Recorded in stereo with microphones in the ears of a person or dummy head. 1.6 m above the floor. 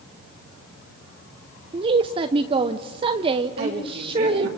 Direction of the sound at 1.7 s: 30° right (ahead or behind).